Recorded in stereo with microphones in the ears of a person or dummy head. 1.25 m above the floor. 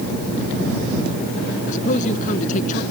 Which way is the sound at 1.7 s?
50° left (ahead or behind).